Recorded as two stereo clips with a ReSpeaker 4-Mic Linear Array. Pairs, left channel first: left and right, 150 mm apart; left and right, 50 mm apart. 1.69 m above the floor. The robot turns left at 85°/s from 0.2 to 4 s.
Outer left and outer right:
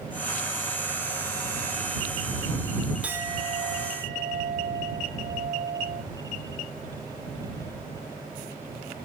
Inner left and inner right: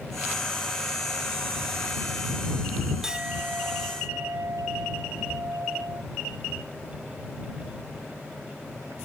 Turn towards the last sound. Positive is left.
turn(degrees=-90)